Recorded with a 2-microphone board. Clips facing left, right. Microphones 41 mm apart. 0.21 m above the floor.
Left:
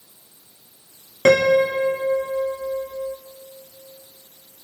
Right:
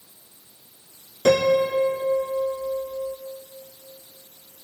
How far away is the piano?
About 0.9 m.